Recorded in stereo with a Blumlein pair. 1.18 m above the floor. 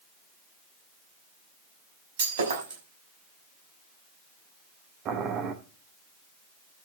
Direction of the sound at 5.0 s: 30° right.